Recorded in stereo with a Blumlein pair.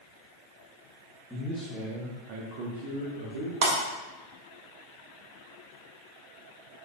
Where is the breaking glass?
40° right, 2.5 m.